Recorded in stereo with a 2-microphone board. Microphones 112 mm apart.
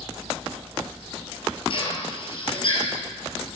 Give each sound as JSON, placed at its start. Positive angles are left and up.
{"t": 1.7, "sound": "a drill", "side_deg": 50, "distance_m": 5.0}